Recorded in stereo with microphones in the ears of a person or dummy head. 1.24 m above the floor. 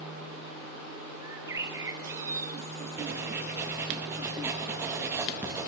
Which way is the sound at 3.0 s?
10° right (ahead or behind).